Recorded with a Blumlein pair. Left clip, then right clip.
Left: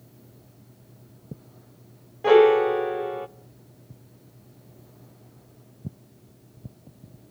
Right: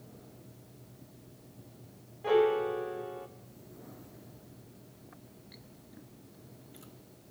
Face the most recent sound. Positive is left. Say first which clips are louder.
# left 11 dB
turn(degrees=60)